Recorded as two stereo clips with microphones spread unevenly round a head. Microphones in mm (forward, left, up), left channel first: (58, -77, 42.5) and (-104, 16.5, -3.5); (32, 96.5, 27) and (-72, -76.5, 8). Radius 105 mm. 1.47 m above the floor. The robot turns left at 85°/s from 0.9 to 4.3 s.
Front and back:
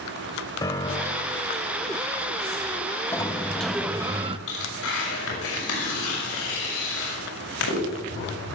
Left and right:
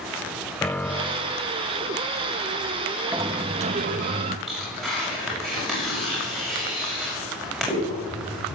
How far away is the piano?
About 0.6 m.